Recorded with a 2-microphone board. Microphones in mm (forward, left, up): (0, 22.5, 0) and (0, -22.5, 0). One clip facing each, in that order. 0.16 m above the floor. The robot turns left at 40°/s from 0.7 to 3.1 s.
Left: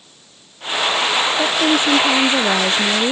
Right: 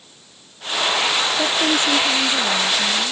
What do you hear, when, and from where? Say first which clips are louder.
1.4 s a woman speaking: left 3 dB; 175° left; by 3.1 s 105° left